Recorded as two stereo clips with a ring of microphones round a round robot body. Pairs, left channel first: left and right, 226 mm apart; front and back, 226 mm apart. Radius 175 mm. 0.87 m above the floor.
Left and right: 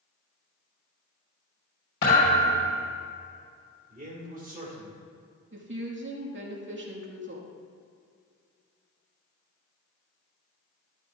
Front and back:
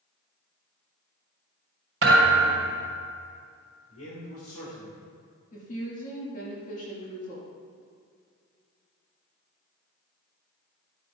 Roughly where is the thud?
Behind left.